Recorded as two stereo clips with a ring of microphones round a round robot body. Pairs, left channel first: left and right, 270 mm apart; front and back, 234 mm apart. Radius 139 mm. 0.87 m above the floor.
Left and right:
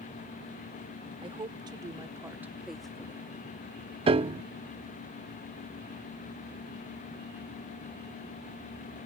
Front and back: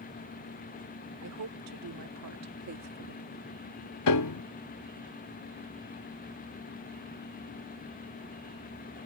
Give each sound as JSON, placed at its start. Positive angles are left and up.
{"t": 1.2, "sound": "a woman speaking", "azimuth_deg": -160}
{"t": 4.1, "sound": "a piano", "azimuth_deg": -20}